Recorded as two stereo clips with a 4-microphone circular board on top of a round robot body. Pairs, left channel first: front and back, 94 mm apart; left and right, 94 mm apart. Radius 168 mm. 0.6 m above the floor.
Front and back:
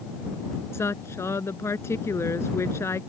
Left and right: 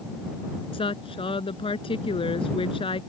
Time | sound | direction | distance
0.7 | a woman speaking | 65° left | ?